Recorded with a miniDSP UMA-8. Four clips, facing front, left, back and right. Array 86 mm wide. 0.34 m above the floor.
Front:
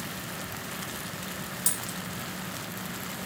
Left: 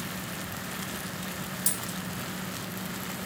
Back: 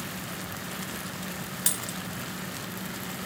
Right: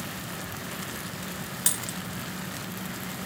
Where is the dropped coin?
125° right, 0.5 m.